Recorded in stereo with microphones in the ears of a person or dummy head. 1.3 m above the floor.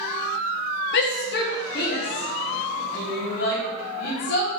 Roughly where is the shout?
Left.